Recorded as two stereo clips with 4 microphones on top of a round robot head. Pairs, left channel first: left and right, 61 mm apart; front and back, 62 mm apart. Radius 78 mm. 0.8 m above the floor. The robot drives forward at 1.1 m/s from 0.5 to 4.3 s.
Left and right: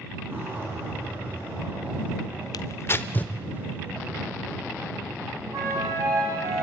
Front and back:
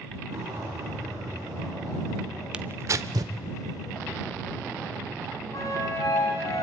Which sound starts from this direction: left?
Tearing paper, at 2.5 s.